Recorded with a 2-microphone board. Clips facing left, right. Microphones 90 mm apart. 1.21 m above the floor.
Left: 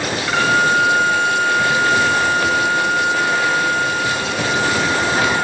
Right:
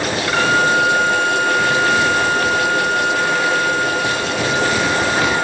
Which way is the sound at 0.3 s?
5° left (ahead or behind).